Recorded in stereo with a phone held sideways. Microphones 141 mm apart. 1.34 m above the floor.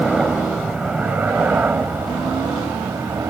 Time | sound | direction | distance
0.0 | a helicopter | 5° right (ahead or behind) | ?